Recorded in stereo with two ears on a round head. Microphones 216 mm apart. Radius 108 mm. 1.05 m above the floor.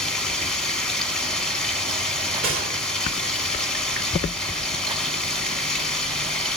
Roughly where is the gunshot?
Right.